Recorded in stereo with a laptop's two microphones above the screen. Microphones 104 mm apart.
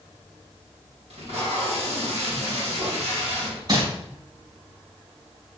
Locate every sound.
1.1 s tape being pulled: 75° right (ahead or behind), 1.8 m
3.7 s crumpling: 45° right (ahead or behind), 2.5 m